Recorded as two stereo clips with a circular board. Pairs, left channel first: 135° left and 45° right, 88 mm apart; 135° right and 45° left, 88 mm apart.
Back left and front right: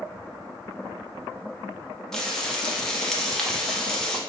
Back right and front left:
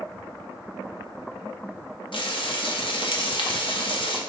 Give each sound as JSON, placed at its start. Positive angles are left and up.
{"t": 2.1, "sound": "frying", "azimuth_deg": -140, "distance_m": 0.7}